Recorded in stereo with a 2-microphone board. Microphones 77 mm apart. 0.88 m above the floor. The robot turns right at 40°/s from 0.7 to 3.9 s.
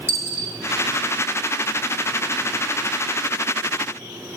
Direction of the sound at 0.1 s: 30° left (ahead or behind).